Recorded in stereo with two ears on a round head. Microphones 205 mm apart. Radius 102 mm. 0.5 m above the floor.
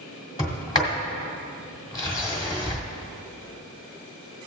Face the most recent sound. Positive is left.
turn(degrees=20)  # may be behind; listen again after turning